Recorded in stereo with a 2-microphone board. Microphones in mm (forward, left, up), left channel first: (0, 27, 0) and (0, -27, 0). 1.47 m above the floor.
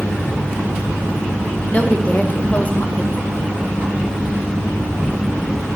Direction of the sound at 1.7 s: 30° left (ahead or behind).